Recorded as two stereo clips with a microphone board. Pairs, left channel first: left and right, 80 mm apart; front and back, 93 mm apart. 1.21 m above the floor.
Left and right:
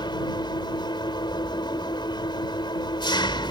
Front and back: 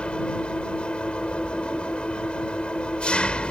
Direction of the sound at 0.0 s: 75° left.